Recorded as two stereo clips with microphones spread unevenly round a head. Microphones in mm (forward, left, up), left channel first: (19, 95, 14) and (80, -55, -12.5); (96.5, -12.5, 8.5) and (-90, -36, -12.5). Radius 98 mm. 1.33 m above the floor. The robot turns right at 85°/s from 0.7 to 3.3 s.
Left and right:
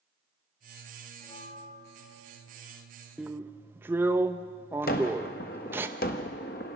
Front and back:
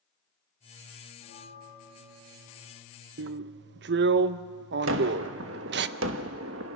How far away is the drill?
About 0.7 m.